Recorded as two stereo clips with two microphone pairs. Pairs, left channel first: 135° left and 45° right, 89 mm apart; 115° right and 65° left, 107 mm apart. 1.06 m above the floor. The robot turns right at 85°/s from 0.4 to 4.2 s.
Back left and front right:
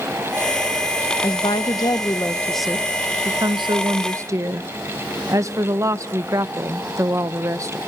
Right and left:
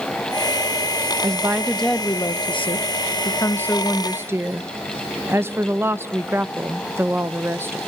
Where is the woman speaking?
110° left, 0.8 m; by 7.8 s straight ahead, 0.8 m.